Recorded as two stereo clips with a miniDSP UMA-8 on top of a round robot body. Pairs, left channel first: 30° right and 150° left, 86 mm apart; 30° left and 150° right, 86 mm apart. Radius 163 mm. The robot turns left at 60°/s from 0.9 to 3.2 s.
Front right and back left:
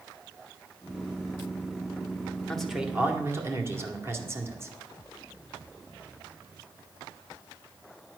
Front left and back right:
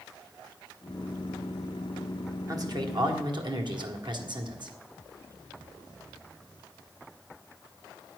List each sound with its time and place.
2.5 s a man speaking: 110° right, 1.8 m; by 4.7 s 155° right, 1.8 m